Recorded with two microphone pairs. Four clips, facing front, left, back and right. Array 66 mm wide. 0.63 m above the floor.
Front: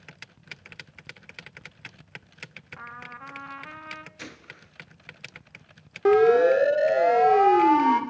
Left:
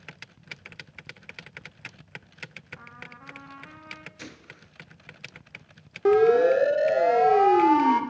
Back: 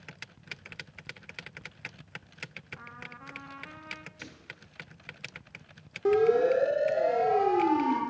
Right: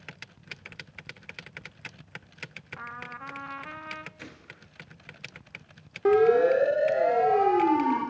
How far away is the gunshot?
About 1.5 m.